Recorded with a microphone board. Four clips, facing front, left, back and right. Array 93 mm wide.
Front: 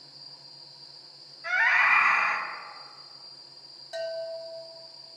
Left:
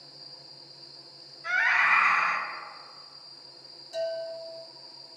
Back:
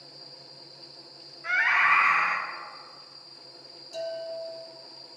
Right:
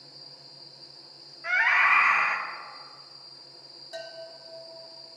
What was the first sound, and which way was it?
A scream, 110° right.